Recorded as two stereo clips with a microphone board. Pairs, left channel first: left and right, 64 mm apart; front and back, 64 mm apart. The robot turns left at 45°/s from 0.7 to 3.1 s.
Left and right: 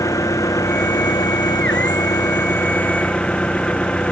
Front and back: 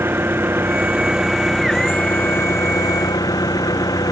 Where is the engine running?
125° left; by 4.1 s 15° left.